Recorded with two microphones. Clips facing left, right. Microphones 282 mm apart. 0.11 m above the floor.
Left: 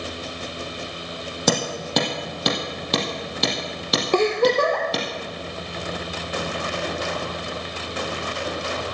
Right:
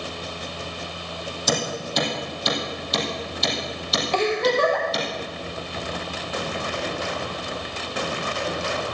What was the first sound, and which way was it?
Hammering, 70° left (ahead or behind).